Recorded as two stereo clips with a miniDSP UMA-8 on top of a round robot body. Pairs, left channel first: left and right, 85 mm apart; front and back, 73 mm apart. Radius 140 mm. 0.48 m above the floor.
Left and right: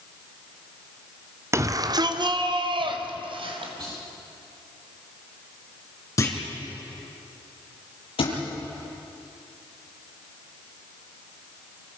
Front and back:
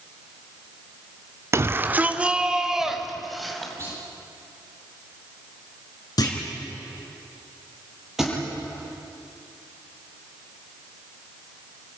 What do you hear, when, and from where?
1.5 s a shout: 140° right, 1.5 m; by 3.7 s 85° right, 4 m
3.8 s a clunk: 130° right, 10 m
6.2 s a clunk: 35° left, 3.5 m
8.2 s a thud: 95° left, 7 m